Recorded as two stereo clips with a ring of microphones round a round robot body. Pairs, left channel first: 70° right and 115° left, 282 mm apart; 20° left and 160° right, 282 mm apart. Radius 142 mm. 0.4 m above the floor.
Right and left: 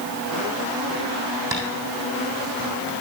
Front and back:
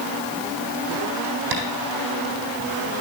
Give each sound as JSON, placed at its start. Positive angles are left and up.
{"t": 1.5, "sound": "tapping", "azimuth_deg": -170, "distance_m": 3.0}